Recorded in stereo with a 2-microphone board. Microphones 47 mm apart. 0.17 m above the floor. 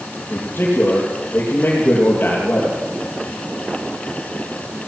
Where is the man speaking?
40° left (ahead or behind), 5 m.